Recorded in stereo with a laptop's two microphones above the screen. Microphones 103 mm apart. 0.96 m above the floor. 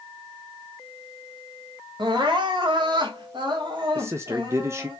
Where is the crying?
50° right (ahead or behind), 1.4 m.